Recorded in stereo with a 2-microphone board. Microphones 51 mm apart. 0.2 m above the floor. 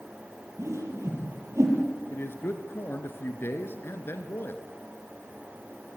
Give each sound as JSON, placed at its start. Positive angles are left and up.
{"t": 0.6, "sound": "a whoosh", "side_deg": -70, "distance_m": 6.0}
{"t": 2.1, "sound": "a man speaking", "side_deg": 50, "distance_m": 2.5}